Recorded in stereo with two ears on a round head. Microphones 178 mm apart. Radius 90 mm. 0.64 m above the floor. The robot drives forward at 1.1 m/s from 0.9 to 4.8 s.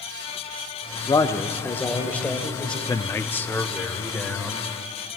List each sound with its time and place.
1.1 s a man speaking: 20° left (ahead or behind), 0.8 m; by 2.8 s 5° left (ahead or behind), 2.5 m
2.9 s a man speaking: 20° left (ahead or behind), 0.6 m; by 4.7 s 5° left (ahead or behind), 2.5 m